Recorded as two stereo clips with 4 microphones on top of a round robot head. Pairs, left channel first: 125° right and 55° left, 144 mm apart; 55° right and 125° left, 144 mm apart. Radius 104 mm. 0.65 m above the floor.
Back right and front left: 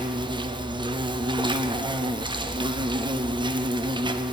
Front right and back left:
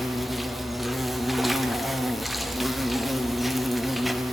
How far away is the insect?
About 0.7 m.